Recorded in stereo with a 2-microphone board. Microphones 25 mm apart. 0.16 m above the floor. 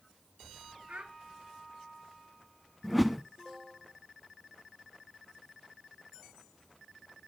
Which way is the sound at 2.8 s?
Centre (ahead or behind).